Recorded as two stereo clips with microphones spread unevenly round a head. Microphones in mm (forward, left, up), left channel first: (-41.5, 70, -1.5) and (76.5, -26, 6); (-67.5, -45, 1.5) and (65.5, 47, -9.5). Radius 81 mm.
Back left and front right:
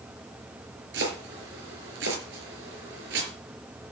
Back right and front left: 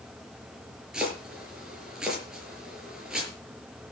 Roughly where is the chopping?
Ahead right.